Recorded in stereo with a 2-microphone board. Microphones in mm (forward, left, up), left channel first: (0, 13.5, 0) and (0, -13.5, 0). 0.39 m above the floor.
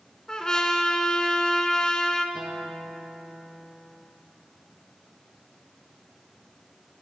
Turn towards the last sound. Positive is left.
turn(degrees=-15)  # may be behind; listen again after turning